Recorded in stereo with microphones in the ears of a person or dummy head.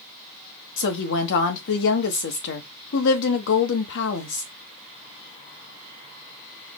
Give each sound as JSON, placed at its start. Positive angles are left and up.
{"t": 0.8, "sound": "a woman speaking", "side_deg": 65, "distance_m": 1.2}